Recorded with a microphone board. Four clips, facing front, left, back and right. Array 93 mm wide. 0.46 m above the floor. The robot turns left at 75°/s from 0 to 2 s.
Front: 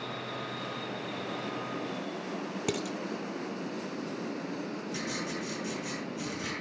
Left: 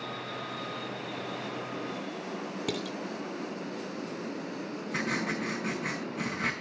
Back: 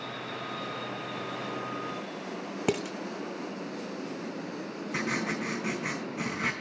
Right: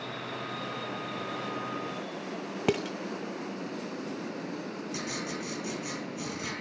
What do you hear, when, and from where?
2.7 s dishes clattering: 125° right, 0.7 m
4.9 s writing: 145° left, 3.5 m